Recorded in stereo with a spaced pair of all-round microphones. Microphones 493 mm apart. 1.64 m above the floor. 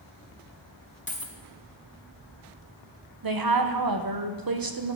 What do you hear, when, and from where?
1.1 s a dropped coin: 25° left (ahead or behind), 0.9 m
3.2 s a woman speaking: 45° right (ahead or behind), 0.6 m